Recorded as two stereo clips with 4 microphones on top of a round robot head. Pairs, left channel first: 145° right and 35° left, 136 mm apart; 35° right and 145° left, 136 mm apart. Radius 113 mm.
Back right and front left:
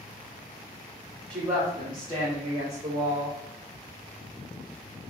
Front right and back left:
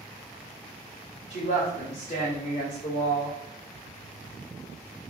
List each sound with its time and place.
1.3 s a woman speaking: 60° right, 1.7 m; by 3.4 s 5° right, 1.9 m